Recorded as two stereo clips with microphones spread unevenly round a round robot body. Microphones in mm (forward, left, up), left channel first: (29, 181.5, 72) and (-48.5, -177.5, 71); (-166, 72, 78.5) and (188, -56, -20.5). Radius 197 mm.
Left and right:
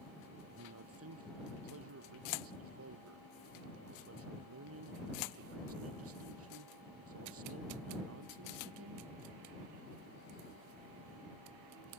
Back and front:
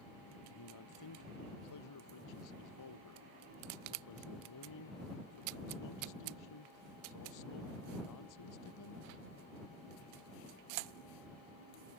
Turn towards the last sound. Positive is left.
turn(degrees=-155)